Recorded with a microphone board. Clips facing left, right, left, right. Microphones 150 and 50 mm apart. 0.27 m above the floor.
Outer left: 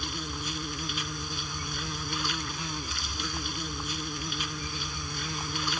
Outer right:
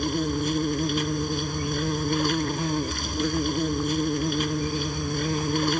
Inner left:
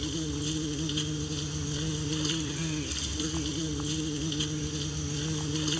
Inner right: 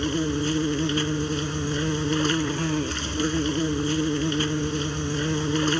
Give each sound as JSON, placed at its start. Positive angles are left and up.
{"t": 0.0, "sound": "an insect", "side_deg": -50}